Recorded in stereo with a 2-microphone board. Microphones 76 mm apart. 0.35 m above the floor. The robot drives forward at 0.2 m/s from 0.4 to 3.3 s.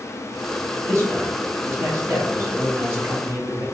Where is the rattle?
I don't hear a rattle.